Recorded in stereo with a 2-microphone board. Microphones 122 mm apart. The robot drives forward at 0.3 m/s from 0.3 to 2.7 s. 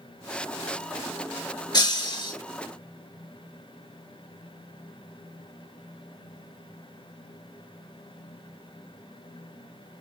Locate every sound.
1.7 s breaking glass: 40° left (ahead or behind), 0.9 m